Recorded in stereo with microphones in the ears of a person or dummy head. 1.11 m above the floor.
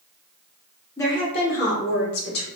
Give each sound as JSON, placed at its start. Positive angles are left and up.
{"t": 1.0, "sound": "a woman speaking", "side_deg": 15, "distance_m": 0.7}